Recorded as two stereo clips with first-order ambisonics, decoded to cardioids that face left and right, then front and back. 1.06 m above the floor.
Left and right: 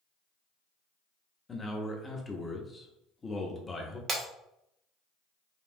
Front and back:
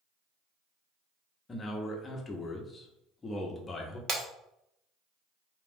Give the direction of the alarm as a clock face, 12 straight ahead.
No alarm in this recording.